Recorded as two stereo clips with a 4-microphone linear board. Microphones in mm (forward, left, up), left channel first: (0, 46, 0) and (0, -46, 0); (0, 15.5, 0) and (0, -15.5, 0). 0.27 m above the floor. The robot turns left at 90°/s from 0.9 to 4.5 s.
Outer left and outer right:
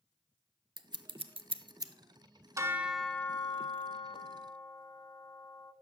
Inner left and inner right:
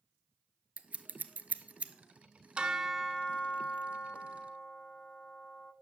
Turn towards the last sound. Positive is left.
turn(degrees=40)